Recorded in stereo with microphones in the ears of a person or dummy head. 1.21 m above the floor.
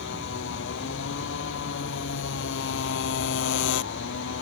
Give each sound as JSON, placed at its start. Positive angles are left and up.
{"t": 0.0, "sound": "a motorcycle", "side_deg": 70}